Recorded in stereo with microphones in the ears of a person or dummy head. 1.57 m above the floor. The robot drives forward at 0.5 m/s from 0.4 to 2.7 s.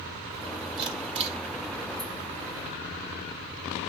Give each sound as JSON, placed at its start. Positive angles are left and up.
{"t": 0.8, "sound": "a camera shutter", "side_deg": -25, "distance_m": 1.6}